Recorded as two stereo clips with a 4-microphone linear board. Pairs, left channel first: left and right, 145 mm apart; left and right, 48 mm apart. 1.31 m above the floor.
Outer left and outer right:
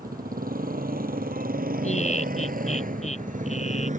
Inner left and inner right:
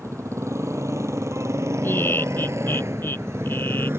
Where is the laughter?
50° left (ahead or behind).